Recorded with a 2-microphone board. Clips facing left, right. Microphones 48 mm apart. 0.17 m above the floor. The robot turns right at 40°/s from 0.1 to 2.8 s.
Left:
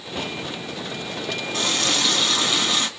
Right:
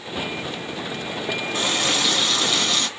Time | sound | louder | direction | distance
1.5 | a running tap | even | 30° right | 0.8 m